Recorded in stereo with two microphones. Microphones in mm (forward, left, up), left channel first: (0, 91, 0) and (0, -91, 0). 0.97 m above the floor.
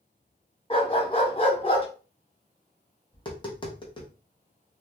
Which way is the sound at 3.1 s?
25° left (ahead or behind).